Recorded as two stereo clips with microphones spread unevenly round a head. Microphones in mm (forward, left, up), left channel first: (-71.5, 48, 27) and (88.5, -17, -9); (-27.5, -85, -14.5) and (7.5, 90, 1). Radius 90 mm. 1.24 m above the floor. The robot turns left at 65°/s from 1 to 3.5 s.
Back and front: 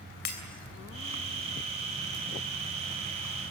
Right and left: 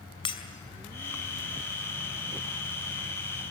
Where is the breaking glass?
165° right, 3 m.